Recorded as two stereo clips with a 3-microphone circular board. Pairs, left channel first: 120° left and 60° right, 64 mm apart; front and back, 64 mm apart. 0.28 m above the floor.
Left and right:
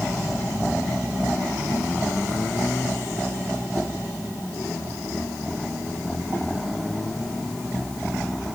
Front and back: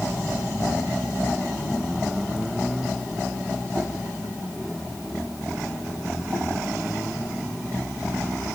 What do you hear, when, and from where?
Only background noise.